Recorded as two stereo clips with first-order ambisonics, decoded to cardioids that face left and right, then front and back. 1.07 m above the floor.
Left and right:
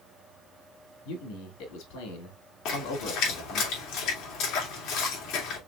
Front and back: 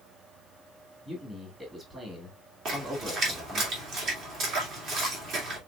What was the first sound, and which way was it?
A man speaking, 105° left.